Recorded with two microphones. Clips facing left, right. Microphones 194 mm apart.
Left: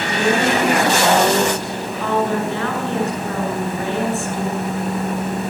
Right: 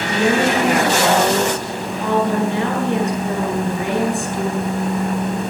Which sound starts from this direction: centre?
A woman speaking, at 0.1 s.